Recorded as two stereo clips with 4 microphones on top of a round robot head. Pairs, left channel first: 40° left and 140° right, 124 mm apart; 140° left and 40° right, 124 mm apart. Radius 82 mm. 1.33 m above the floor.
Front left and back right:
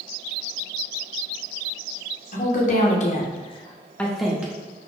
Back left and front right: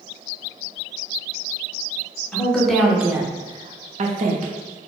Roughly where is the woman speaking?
Ahead left.